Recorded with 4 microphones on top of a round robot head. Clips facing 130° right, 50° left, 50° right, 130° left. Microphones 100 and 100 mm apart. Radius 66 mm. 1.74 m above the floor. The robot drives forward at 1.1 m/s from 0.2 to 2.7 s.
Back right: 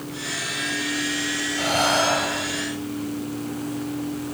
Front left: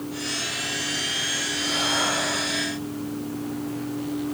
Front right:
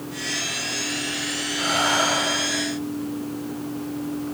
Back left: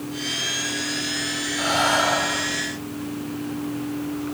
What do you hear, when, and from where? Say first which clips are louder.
1.6 s breathing: back right 6 dB, back left 2 dB; 160° right, 4.5 m